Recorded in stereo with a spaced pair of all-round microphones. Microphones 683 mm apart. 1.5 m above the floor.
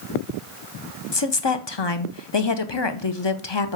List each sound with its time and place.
1.1 s a woman speaking: 40° left (ahead or behind), 0.8 m